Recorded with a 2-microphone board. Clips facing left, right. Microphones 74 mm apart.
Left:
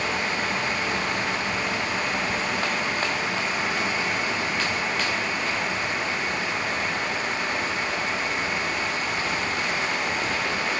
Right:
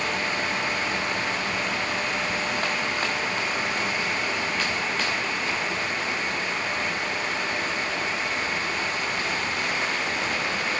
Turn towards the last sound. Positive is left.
No sound to turn to.